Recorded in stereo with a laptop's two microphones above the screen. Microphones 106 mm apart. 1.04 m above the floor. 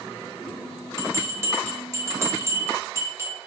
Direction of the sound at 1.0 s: 25° right (ahead or behind).